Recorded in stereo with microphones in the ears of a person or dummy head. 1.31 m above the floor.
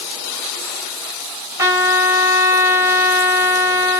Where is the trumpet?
20° right (ahead or behind), 2 m.